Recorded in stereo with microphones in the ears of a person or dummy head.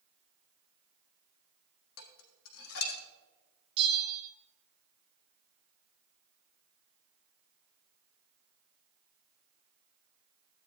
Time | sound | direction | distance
2.0 | dishes clattering | 75° left (ahead or behind) | 1.5 m
3.8 | a bell | 25° right (ahead or behind) | 1.5 m